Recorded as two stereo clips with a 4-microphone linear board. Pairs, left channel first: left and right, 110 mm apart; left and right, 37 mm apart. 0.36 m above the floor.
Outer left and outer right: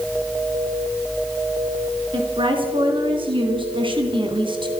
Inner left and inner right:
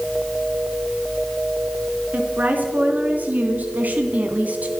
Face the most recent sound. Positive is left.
turn(degrees=-50)  # may be behind; listen again after turning